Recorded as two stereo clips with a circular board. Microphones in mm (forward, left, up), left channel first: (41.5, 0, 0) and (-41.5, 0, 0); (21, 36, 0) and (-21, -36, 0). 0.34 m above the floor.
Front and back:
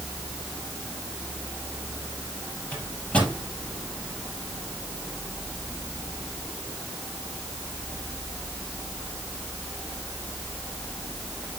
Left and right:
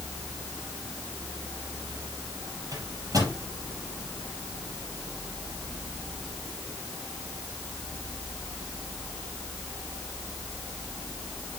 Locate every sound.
2.7 s a microwave: 75° right, 7 m